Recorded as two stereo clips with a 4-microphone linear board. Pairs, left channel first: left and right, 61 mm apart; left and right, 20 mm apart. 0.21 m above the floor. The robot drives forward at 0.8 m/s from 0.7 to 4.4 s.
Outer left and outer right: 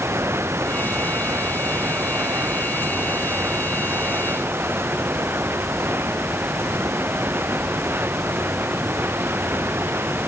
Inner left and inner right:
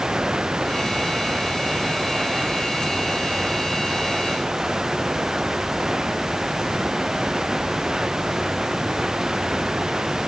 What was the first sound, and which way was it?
Running water, 45° right (ahead or behind).